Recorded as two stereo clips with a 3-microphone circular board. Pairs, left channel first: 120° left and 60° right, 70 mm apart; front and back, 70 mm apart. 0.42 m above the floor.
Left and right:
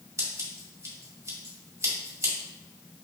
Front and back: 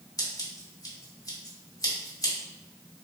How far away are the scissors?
About 1.7 m.